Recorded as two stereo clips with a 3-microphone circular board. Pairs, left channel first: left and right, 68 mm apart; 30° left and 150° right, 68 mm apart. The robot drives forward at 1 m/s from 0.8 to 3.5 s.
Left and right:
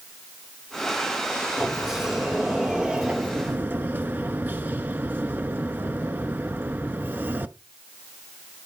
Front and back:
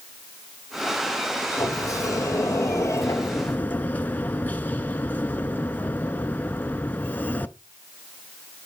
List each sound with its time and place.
1.6 s a sliding door: 5° right, 2.5 m; by 7.6 s 30° right, 0.6 m